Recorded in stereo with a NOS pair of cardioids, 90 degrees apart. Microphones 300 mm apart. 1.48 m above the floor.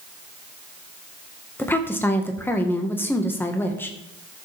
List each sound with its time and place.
1.6 s a woman speaking: 5° left, 1.6 m